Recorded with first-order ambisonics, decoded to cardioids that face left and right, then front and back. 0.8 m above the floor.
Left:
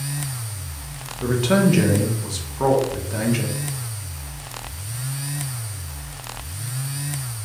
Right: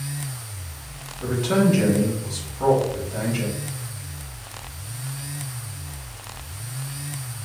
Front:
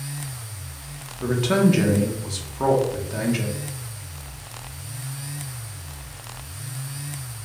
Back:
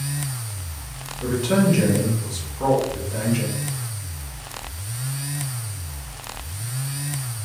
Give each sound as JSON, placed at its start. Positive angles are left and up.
{"t": 1.2, "sound": "a man speaking", "azimuth_deg": 55, "distance_m": 0.5}